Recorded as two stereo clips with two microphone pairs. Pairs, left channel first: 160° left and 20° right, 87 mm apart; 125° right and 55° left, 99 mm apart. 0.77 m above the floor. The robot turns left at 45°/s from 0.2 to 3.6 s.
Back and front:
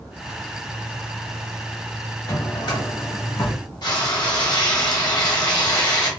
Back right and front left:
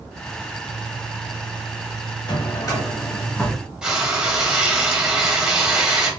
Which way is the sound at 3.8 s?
135° left.